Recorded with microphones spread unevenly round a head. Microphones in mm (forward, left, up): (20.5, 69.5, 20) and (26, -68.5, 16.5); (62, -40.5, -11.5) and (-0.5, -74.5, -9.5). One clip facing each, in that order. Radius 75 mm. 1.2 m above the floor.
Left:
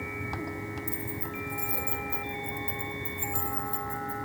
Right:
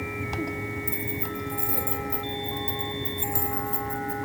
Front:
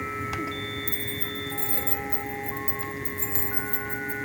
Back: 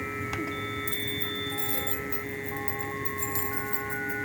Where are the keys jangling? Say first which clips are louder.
Right 4 dB, even; 15° right, 3.5 m.